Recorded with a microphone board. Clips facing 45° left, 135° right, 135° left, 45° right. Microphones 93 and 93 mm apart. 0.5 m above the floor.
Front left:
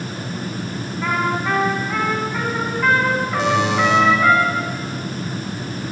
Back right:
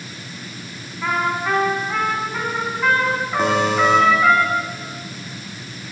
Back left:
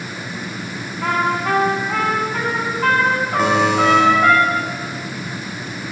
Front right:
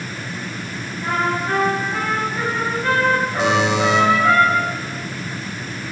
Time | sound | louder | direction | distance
1.0 | a trumpet | even, back left 2 dB | 135° left | 6 m
3.4 | a buzzer | back right 1 dB, back left 4 dB | straight behind | 6 m